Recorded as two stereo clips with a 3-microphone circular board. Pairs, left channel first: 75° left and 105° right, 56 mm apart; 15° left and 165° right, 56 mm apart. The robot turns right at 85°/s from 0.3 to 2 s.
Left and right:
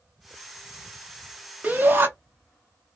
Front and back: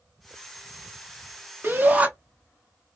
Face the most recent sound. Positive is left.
turn(degrees=-120)